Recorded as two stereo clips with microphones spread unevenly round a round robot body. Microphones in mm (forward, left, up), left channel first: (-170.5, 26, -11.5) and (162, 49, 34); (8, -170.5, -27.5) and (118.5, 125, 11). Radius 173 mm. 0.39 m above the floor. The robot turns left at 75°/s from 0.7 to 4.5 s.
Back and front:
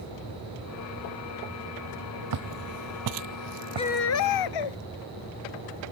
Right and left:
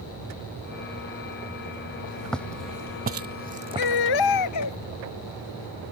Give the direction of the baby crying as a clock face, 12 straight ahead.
3 o'clock.